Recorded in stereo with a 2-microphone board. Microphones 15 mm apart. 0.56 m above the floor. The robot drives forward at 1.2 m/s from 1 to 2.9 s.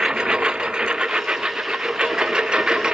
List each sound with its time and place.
0.0 s a lawn mower: 65° right (ahead or behind); by 2.9 s 55° right (ahead or behind)